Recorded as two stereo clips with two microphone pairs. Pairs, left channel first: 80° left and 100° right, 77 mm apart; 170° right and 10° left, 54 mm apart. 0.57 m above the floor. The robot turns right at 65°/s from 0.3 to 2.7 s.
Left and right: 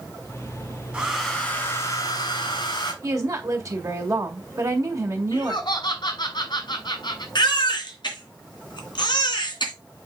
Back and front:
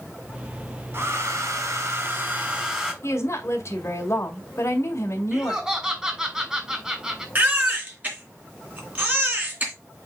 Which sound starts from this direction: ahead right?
A hair dryer, at 0.9 s.